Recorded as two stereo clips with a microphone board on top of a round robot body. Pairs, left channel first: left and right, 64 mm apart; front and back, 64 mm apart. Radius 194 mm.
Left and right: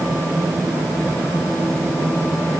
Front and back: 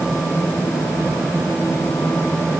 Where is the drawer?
No drawer in this recording.